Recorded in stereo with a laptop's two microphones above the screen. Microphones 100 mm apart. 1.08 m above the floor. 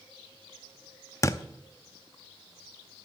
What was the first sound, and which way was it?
A thud, 30° left (ahead or behind).